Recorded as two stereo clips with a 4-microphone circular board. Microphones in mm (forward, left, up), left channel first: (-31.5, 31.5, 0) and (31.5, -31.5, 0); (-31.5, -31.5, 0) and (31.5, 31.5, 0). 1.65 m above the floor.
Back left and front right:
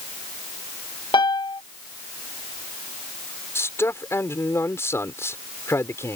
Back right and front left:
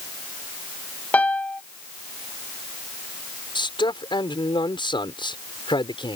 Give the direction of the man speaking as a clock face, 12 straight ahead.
5 o'clock.